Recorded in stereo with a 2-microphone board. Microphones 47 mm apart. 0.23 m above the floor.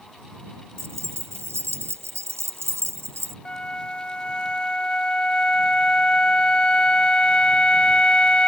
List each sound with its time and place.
0.8 s keys jangling: 75° right (ahead or behind)
3.5 s a flute: 25° left (ahead or behind)